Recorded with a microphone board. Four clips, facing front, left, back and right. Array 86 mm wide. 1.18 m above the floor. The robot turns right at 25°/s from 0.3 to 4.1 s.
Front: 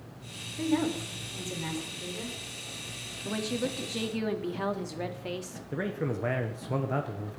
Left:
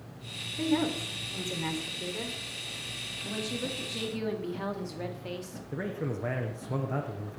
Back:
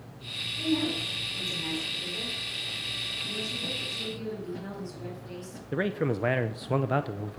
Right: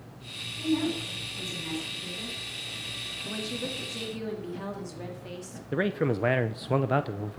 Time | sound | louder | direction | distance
0.6 | a woman speaking | even, front 1 dB | 50° left | 4 m
3.2 | a woman speaking | even, front 7 dB | 10° right | 2 m
5.7 | a man speaking | right 7 dB, back 4 dB | 115° right | 0.7 m